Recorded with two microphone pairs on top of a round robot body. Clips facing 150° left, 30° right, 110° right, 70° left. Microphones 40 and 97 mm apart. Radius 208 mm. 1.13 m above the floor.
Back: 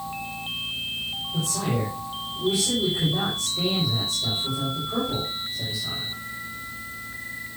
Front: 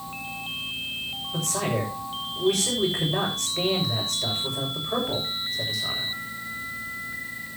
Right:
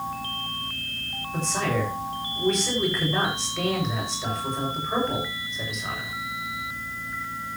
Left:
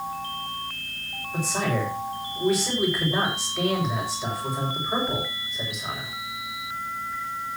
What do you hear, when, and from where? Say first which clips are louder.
1.3 s a man speaking: front 1 dB, even; 15° right, 7 m